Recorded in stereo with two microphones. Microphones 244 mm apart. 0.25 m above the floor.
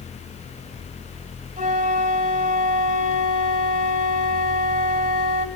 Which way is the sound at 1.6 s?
35° right (ahead or behind).